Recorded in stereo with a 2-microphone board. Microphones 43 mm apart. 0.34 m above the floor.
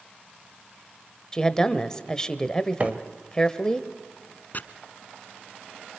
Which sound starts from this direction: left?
Chopping, at 4.5 s.